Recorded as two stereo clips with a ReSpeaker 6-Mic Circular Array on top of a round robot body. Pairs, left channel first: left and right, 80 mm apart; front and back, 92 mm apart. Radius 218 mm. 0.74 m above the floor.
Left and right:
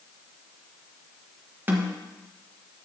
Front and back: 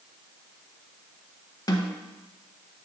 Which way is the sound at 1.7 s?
30° right.